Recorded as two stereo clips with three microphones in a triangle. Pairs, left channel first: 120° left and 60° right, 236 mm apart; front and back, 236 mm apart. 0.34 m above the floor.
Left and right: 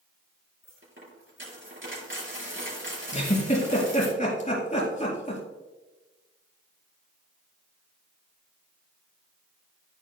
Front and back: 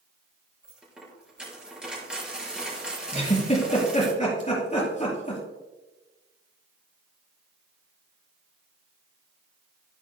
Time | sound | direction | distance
0.6 | a dropped coin | 95° right | 4 m
3.1 | a giggle | 60° left | 4 m